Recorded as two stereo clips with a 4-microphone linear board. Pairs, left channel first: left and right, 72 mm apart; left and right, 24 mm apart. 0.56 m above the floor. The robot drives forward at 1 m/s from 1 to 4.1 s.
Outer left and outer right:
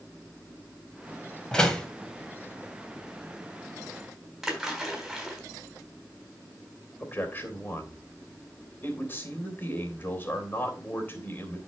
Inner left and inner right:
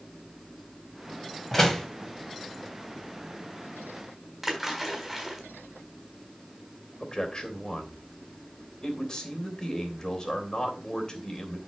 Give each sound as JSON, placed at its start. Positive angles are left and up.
{"t": 1.5, "sound": "a door slam", "side_deg": 10, "distance_m": 2.0}
{"t": 4.4, "sound": "a splash", "side_deg": -5, "distance_m": 3.5}
{"t": 7.0, "sound": "a man speaking", "side_deg": 30, "distance_m": 3.0}